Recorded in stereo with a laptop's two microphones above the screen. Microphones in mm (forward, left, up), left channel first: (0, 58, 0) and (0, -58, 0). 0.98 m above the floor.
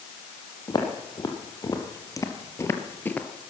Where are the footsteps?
35° left (ahead or behind), 2 m; by 3.3 s 10° left (ahead or behind), 1.0 m.